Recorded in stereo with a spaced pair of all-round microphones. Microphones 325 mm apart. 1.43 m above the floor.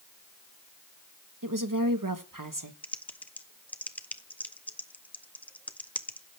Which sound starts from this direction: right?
A woman speaking, at 1.4 s.